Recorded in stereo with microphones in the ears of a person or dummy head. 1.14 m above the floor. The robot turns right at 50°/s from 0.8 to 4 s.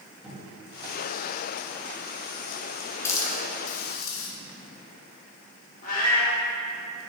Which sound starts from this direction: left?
A cat meowing, at 5.8 s.